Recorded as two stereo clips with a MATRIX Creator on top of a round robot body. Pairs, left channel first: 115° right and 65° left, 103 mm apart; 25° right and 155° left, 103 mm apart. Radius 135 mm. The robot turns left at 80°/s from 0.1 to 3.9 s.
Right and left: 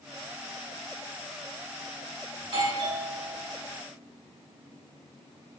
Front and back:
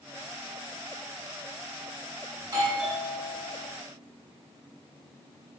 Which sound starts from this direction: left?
A doorbell, at 2.4 s.